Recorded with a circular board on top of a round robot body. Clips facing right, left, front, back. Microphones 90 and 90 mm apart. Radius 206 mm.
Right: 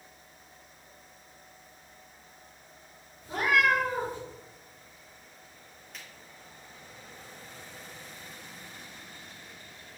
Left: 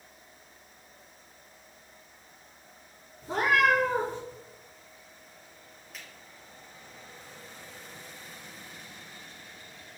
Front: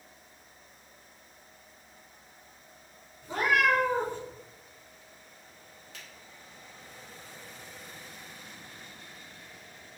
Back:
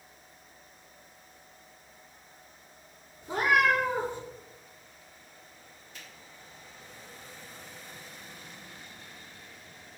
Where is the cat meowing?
110° left, 3 m.